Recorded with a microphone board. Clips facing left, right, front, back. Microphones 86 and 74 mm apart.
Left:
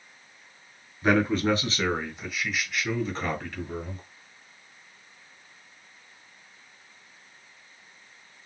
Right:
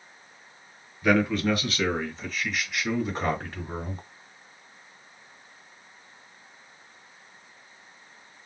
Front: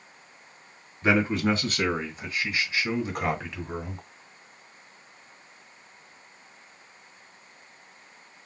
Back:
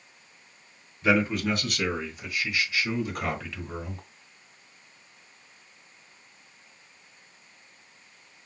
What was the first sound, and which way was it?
A man speaking, 50° left.